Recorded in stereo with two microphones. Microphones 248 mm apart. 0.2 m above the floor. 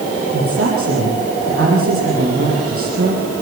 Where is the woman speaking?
60° right (ahead or behind), 7 m.